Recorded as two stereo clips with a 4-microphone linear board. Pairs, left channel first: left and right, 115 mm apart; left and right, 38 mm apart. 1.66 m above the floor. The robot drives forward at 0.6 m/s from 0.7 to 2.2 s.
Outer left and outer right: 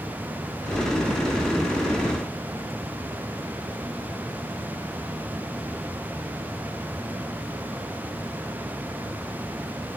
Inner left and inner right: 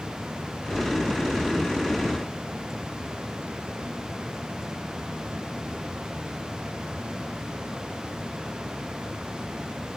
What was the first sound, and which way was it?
Only background noise.